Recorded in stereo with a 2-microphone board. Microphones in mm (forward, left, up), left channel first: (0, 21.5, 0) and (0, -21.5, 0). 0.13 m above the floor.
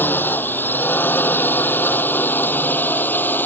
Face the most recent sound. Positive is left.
turn(degrees=50)  # may be behind; listen again after turning